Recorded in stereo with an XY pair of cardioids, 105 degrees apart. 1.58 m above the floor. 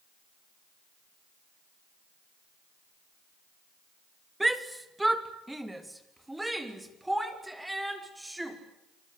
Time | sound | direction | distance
4.4 | a shout | 10° right | 2 m